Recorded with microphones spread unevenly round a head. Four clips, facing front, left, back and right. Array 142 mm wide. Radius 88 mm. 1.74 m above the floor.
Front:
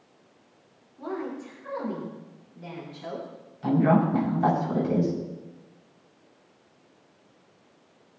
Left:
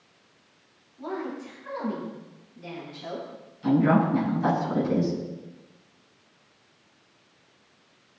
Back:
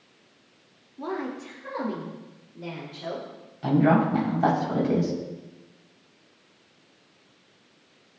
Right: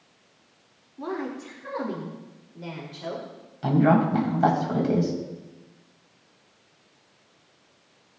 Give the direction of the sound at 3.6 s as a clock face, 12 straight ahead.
4 o'clock.